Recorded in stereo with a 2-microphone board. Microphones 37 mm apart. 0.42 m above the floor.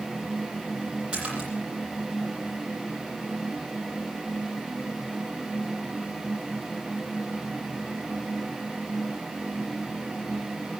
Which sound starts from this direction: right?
A splash, at 1.1 s.